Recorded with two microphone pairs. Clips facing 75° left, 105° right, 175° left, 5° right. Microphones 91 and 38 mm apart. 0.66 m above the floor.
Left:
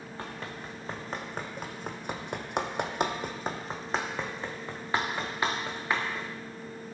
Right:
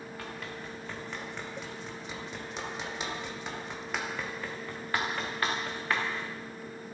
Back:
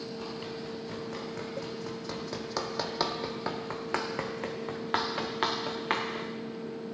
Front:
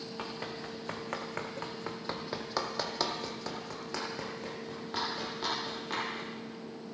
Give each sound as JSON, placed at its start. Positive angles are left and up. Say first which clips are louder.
{"t": 0.2, "sound": "running footsteps", "louder": "left 3 dB, back 2 dB", "azimuth_deg": 15, "distance_m": 2.5}